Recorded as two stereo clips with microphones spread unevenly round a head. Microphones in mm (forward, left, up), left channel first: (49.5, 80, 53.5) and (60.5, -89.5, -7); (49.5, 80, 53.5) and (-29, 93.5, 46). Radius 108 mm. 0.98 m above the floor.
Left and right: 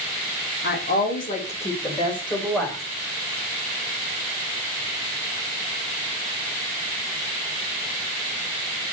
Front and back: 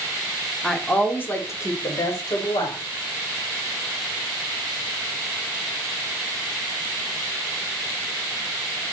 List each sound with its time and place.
0.6 s a woman speaking: 75° left, 2.0 m; by 2.8 s 20° left, 4 m